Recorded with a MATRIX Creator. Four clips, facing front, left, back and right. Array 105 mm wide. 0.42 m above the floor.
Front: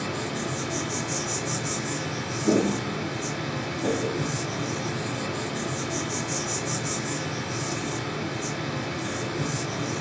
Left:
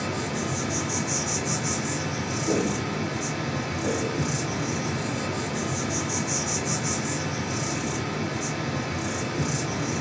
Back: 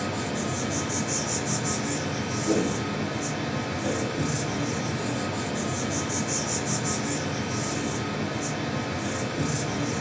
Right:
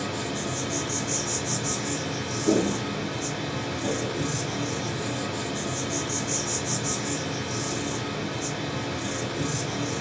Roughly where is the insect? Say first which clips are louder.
Left 1 dB, back 1 dB; left.